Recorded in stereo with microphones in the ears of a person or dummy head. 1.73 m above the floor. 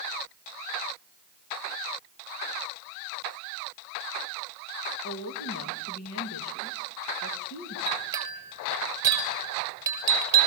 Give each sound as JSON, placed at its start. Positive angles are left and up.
{"t": 5.0, "sound": "a woman speaking", "side_deg": 80, "distance_m": 3.0}
{"t": 7.9, "sound": "a clink", "side_deg": -25, "distance_m": 5.0}